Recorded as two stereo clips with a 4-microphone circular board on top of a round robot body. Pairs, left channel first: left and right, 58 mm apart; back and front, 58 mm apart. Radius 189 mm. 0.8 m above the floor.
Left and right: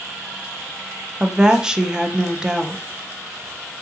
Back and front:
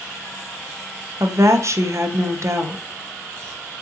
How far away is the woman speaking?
About 0.6 m.